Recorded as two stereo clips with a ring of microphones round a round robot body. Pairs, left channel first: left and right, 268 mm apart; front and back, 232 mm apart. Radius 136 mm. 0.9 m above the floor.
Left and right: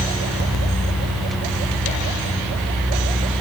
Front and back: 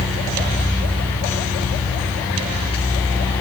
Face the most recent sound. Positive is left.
No sound to turn to.